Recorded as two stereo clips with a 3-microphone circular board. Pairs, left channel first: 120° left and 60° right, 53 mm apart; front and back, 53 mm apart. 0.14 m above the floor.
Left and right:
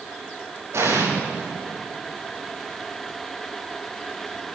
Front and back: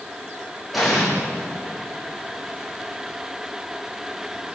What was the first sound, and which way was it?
An explosion, 95° right.